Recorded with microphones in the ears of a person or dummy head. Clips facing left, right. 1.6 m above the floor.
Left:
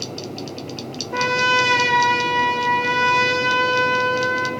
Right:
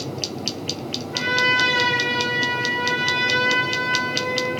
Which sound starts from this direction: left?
A trumpet, at 1.1 s.